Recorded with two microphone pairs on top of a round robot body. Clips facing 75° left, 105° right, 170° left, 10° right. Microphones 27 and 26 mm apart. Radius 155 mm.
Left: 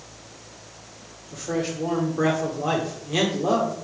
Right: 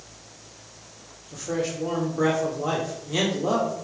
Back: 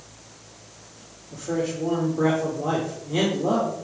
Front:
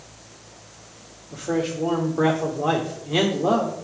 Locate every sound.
1.3 s a man speaking: straight ahead, 1.5 m